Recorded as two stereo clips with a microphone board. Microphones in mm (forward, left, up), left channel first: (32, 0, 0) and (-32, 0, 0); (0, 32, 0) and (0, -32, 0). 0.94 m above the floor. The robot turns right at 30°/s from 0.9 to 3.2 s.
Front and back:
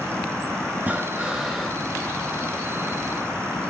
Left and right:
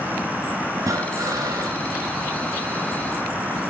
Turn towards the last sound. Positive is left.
turn(degrees=-45)